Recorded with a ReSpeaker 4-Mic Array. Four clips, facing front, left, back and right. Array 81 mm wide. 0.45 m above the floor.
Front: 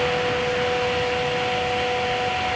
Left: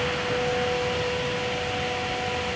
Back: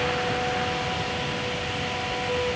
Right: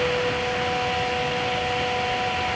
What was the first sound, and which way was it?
Only background noise.